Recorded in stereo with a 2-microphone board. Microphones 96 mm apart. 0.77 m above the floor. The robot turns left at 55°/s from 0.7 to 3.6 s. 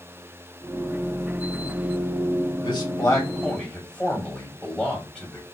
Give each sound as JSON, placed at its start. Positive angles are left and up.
{"t": 2.6, "sound": "a man speaking", "azimuth_deg": 65, "distance_m": 1.7}